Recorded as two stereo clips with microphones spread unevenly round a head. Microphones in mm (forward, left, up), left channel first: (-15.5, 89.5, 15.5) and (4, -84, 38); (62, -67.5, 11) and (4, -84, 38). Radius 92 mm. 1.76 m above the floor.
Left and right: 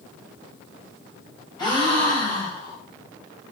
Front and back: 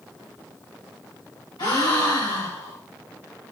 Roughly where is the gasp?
Ahead left.